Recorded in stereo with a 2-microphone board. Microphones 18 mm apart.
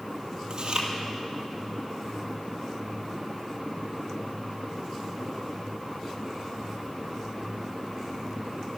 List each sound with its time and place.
0.5 s chewing: 40° right (ahead or behind), 2 m